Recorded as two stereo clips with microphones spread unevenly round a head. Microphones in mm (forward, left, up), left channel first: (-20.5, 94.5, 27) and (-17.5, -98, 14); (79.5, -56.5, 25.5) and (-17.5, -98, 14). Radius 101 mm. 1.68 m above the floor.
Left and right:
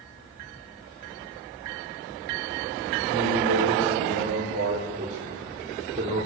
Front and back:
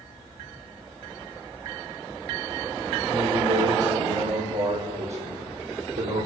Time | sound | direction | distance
3.1 | a man speaking | 125° right | 6 m